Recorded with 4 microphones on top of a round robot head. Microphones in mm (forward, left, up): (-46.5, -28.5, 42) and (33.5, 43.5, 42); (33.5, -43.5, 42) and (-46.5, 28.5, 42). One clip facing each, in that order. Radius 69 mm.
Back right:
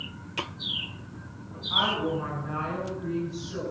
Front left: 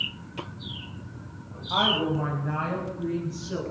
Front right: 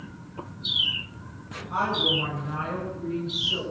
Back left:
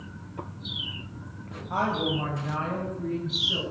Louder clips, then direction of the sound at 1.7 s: Front left 2 dB, even; 90° left.